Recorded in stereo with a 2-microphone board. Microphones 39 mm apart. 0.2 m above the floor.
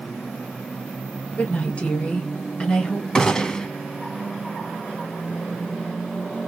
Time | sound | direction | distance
1.4 | a woman speaking | 35° left (ahead or behind) | 2.0 m
3.1 | a gunshot | 20° left (ahead or behind) | 0.8 m